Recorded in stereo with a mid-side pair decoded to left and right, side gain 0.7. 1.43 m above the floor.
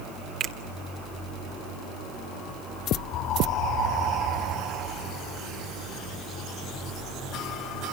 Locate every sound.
0.4 s a finger snap: 45° right, 2 m